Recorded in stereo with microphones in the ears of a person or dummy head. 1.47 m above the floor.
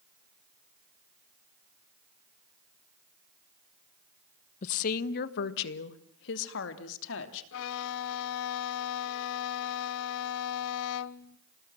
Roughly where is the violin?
Left.